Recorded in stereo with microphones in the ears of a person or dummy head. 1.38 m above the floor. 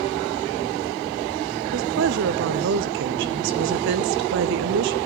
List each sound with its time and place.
1.7 s a woman speaking: 55° right (ahead or behind), 0.5 m